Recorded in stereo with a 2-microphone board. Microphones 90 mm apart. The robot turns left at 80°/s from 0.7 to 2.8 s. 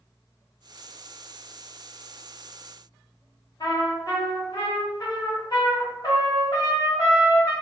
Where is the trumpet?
40° left (ahead or behind), 0.9 m.